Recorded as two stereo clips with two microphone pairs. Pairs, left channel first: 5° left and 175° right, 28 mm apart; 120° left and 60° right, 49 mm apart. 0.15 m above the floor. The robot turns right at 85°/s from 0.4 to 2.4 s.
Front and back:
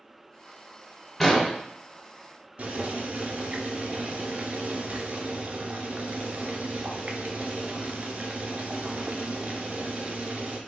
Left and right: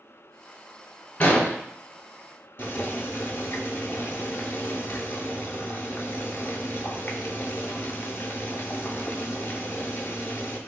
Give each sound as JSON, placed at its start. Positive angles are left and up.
{"t": 1.2, "sound": "an explosion", "azimuth_deg": 80, "distance_m": 0.9}
{"t": 2.6, "sound": "boiling", "azimuth_deg": 160, "distance_m": 0.5}